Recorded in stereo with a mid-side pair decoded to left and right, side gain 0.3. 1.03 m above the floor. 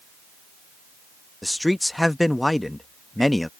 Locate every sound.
1.4 s a man speaking: 15° left